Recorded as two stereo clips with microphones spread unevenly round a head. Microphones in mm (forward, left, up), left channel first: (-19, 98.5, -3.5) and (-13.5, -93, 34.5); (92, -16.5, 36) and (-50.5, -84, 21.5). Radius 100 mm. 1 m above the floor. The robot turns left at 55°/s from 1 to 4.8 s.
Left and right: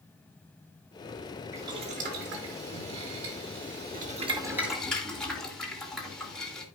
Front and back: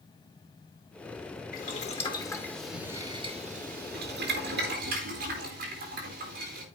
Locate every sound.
1.5 s boiling: 5° right, 2 m; by 6.7 s 175° left, 2 m